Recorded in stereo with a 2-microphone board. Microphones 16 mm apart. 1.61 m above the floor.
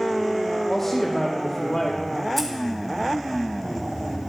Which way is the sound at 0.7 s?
25° left (ahead or behind).